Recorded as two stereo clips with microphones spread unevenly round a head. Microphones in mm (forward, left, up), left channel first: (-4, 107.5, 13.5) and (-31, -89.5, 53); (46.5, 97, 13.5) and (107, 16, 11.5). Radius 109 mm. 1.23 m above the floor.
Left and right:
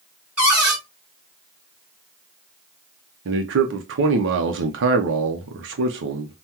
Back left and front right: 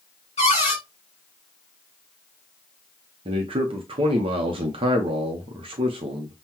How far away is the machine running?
No machine running in this recording.